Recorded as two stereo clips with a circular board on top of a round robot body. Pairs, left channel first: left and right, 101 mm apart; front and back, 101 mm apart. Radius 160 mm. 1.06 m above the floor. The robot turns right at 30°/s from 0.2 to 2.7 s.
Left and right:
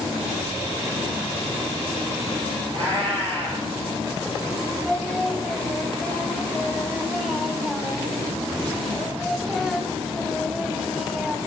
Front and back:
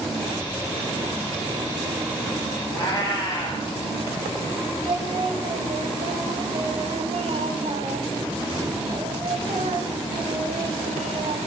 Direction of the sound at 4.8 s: Straight behind.